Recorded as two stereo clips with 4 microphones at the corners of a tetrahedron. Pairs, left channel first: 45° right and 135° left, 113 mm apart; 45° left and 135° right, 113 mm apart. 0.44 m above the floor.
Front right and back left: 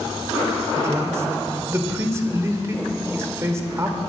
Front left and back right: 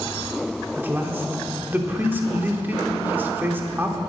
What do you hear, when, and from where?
0.7 s a man speaking: 170° left, 1.1 m